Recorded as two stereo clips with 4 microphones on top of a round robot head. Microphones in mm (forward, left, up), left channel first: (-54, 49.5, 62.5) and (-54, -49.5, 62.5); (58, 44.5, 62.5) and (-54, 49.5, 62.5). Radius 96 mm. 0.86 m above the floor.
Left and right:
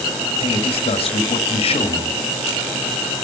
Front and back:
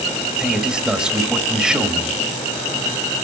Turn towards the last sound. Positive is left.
turn(degrees=95)